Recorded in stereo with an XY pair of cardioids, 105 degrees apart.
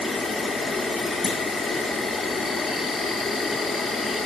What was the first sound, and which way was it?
An insect, 45° left.